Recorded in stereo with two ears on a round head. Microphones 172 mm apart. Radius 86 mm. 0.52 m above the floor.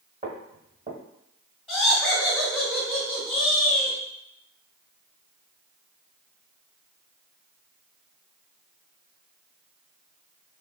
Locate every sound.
0.2 s footsteps: 30° right (ahead or behind), 1.8 m
1.7 s laughter: centre (ahead or behind), 1.4 m